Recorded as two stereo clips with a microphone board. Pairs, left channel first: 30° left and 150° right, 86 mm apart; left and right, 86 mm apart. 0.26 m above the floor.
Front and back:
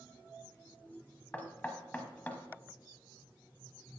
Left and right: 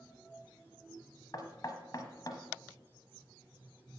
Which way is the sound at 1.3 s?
95° left.